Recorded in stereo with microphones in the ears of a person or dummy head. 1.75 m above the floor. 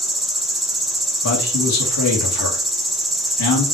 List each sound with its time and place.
0.0 s an insect: centre (ahead or behind), 1.4 m
1.2 s a man speaking: 75° left (ahead or behind), 2.5 m